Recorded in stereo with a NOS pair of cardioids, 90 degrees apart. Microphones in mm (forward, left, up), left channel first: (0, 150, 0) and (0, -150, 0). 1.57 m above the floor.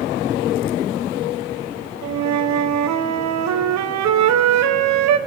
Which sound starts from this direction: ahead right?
A flute, at 2.0 s.